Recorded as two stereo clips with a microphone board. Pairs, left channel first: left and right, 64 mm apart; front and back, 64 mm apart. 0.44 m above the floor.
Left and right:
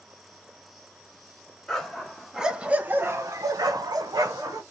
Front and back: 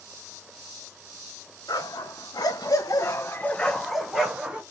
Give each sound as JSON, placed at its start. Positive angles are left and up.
{"t": 1.7, "sound": "a dog barking", "azimuth_deg": 5, "distance_m": 1.4}